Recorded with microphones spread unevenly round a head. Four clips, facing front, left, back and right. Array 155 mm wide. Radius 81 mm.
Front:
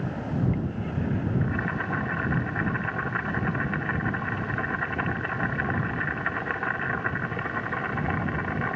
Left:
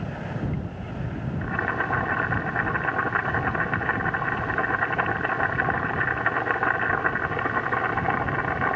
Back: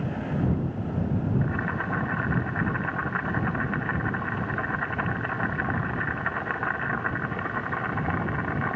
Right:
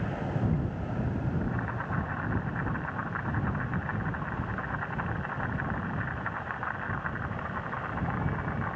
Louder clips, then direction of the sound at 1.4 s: Left 7 dB, even; 80° left.